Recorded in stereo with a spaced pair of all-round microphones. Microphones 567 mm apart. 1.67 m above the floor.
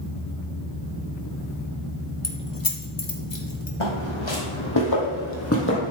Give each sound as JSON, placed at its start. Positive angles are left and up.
{"t": 2.2, "sound": "keys jangling", "side_deg": 30, "distance_m": 1.0}
{"t": 3.8, "sound": "footsteps", "side_deg": 60, "distance_m": 3.5}